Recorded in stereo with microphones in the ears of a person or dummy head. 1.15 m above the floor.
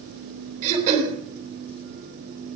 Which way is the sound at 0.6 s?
40° right (ahead or behind).